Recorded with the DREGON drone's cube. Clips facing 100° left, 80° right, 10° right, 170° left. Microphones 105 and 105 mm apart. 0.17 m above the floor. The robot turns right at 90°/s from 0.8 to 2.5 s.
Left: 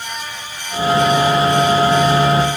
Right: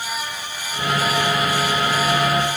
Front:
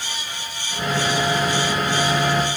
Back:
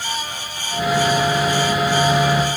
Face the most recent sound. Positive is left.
No sound to turn to.